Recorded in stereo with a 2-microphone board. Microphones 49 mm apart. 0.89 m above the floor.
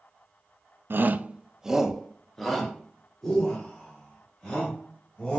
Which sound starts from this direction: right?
A shout, at 0.9 s.